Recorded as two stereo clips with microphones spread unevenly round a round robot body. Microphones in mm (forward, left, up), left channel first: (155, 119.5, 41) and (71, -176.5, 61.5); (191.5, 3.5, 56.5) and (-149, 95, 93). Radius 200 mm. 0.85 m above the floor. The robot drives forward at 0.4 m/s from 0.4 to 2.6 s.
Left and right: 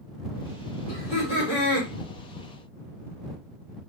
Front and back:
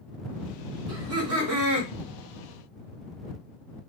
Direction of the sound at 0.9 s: 110° left.